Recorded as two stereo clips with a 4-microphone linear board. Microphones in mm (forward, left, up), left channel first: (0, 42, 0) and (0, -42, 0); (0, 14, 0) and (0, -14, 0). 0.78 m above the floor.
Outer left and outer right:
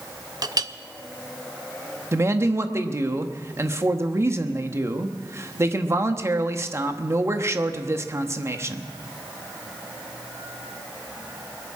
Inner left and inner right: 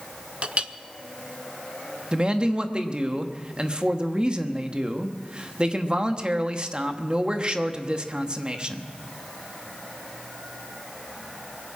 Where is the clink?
50° right (ahead or behind), 0.6 m.